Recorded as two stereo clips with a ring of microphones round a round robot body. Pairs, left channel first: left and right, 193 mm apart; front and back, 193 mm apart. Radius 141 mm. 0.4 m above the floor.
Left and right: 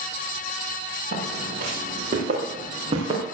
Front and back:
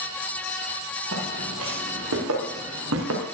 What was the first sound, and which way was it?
Footsteps, 150° right.